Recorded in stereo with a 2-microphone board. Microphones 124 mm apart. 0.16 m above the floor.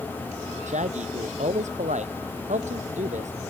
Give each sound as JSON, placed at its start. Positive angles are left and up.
{"t": 0.7, "sound": "a man speaking", "side_deg": -75}